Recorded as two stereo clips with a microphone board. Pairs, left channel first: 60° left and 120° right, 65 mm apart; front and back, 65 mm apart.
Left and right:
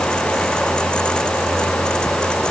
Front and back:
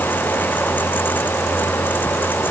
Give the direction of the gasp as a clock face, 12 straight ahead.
I don't hear a gasp.